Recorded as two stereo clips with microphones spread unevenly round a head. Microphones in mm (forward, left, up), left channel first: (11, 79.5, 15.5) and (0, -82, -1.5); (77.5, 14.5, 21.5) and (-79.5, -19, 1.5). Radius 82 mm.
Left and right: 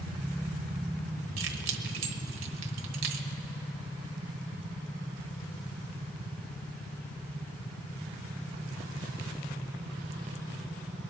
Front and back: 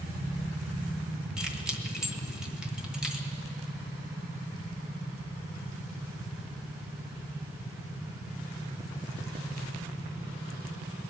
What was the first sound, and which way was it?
Keys jangling, 80° right.